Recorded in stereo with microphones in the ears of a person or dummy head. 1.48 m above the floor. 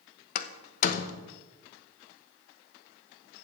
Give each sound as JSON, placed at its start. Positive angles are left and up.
{"t": 0.3, "sound": "a door slam", "side_deg": 45, "distance_m": 0.9}